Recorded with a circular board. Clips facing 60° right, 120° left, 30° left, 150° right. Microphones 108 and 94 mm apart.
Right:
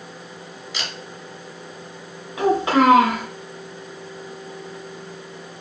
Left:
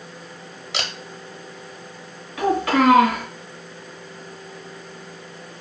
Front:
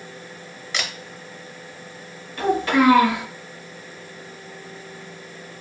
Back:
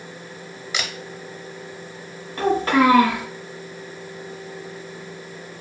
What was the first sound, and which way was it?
A camera shutter, 130° left.